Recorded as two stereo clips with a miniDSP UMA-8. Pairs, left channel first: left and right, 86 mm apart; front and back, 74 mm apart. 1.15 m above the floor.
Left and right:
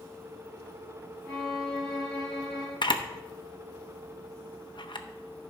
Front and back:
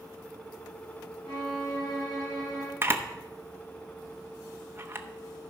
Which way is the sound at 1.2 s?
5° left.